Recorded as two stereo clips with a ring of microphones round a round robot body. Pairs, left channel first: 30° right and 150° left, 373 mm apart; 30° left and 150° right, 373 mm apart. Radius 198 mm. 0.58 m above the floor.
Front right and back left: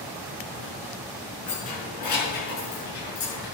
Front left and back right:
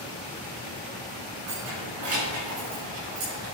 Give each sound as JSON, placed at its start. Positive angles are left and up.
{"t": 1.5, "sound": "keys jangling", "azimuth_deg": -100, "distance_m": 6.0}